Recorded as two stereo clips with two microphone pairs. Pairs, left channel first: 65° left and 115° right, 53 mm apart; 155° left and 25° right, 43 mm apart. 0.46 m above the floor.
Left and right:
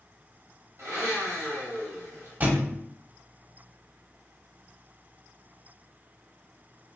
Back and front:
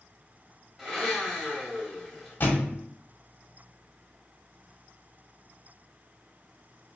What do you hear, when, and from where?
0.8 s a blender: 105° right, 1.2 m
2.4 s a thud: 165° right, 0.6 m